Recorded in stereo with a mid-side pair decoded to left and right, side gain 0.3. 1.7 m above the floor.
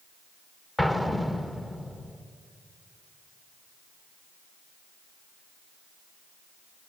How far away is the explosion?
About 2 m.